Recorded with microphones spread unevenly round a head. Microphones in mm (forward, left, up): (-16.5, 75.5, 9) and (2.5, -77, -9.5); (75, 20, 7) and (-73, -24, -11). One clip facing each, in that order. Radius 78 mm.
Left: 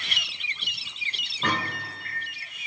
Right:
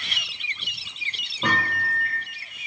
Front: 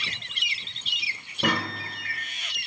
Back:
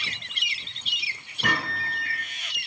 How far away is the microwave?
About 0.8 m.